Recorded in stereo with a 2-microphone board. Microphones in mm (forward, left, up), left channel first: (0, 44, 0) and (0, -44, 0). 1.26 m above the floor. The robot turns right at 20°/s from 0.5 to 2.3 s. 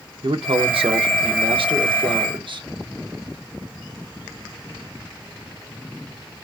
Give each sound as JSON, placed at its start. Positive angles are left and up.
{"t": 0.2, "sound": "a man speaking", "azimuth_deg": -100, "distance_m": 0.9}